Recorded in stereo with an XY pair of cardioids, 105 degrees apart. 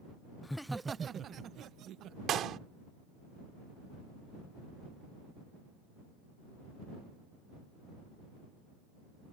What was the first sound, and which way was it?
Laughter, 20° left.